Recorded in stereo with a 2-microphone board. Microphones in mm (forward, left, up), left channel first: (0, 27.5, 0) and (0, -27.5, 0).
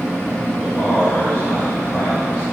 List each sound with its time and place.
0.6 s a man speaking: 30° left (ahead or behind), 2.5 m